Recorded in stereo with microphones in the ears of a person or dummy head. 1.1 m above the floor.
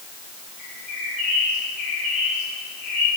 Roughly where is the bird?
Right.